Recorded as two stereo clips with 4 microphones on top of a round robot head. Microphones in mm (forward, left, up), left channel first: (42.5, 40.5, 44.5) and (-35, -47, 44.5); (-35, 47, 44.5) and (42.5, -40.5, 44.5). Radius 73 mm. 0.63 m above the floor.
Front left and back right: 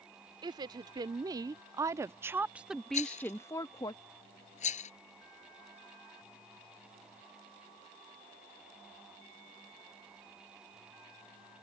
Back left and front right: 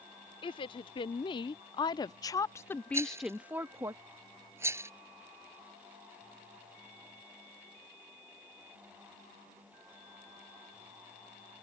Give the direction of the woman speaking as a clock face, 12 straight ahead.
6 o'clock.